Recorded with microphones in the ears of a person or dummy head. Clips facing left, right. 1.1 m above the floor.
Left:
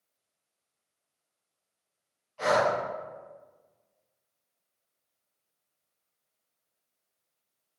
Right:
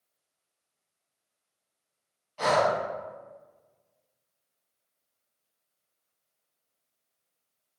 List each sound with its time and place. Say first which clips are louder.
2.4 s breathing: right 1 dB; 60° right (ahead or behind), 1.2 m